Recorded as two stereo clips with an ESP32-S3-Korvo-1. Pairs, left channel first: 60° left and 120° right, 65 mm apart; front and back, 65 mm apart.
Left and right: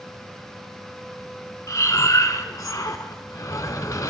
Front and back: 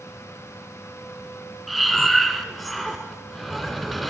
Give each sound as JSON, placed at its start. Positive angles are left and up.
{"t": 1.7, "sound": "breathing", "azimuth_deg": 90, "distance_m": 0.6}